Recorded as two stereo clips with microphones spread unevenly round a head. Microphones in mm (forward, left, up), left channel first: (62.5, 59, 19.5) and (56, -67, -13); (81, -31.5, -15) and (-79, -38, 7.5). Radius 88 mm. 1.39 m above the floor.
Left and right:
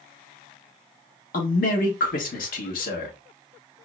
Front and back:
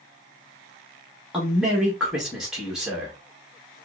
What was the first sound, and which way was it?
A man speaking, 95° left.